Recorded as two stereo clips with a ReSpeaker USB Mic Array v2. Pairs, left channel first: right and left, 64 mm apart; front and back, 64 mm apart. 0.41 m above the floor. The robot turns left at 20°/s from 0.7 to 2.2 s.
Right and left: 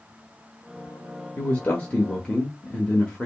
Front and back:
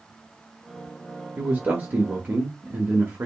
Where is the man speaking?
130° right, 1.2 m; by 3.3 s 150° right, 1.2 m.